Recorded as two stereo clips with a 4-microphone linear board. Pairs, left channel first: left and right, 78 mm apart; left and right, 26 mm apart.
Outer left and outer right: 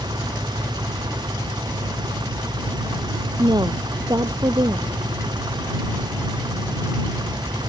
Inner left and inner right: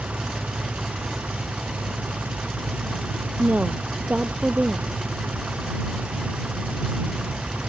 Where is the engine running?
85° right.